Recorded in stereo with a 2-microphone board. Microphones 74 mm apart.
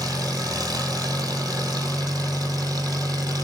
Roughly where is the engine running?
Right.